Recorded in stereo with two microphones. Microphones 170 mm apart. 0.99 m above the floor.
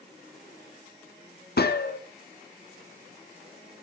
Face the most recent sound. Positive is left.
turn(degrees=70)  # may be behind; listen again after turning